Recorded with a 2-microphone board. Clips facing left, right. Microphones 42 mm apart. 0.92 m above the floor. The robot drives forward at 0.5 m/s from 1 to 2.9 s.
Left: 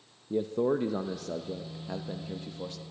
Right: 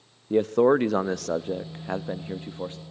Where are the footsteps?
No footsteps in this recording.